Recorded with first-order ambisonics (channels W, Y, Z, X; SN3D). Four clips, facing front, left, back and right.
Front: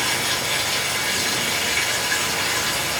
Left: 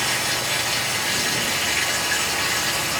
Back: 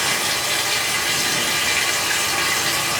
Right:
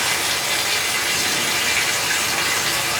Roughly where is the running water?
Behind right.